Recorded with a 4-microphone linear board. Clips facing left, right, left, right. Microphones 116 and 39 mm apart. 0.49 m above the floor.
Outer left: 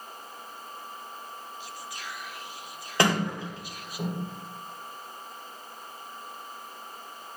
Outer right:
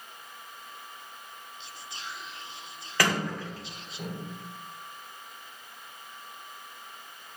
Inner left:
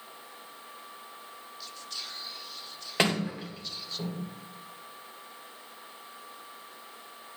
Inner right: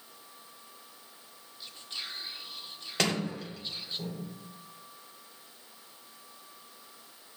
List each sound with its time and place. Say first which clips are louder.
1.6 s whispering: outer left 3 dB, inner right 1 dB; 25° right (ahead or behind), 0.8 m
3.0 s a sliding door: outer left 3 dB, inner left 3 dB; 25° left (ahead or behind), 2.5 m